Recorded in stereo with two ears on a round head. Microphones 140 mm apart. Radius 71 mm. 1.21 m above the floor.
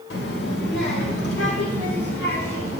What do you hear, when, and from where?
0.1 s a child speaking: 80° left, 1.6 m; by 2.8 s 65° left (ahead or behind), 3 m